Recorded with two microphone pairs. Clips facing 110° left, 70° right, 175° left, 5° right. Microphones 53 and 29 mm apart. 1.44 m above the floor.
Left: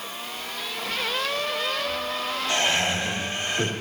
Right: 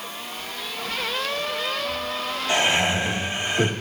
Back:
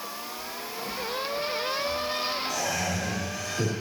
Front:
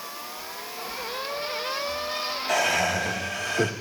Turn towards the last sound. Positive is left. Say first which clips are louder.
# right 4 dB, front 6 dB
turn(degrees=-5)